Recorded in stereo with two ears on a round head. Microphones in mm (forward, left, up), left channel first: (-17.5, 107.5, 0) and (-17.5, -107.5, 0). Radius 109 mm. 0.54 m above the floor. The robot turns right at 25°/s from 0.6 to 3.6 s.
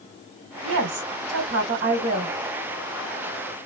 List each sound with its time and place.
0.6 s a woman speaking: 65° right, 1.6 m; by 2.4 s 20° right, 1.6 m